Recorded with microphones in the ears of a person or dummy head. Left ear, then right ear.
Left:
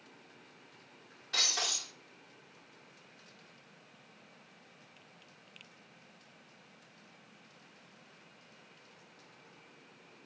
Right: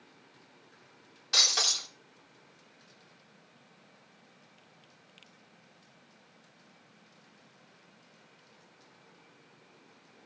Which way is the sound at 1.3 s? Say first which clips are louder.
Right 6 dB; 40° right (ahead or behind).